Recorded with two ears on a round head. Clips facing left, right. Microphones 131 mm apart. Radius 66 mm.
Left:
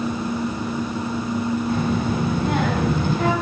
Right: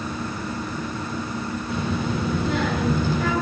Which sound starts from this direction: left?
A child speaking, at 1.7 s.